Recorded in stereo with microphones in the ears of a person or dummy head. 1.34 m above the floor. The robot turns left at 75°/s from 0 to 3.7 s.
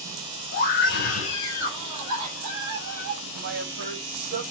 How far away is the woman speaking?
About 4 m.